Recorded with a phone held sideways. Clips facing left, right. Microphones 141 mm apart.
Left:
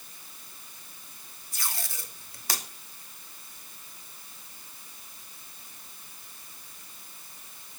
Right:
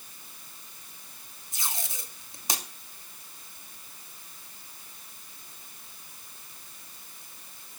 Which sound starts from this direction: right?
Tape being pulled, at 1.5 s.